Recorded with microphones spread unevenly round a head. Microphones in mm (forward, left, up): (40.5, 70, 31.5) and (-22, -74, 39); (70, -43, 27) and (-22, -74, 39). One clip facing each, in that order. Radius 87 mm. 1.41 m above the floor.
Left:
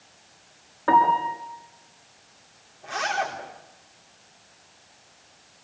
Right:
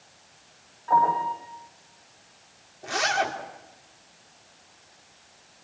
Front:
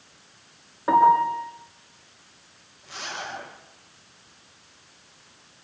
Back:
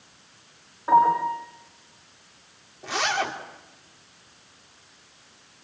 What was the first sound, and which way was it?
A piano, 70° left.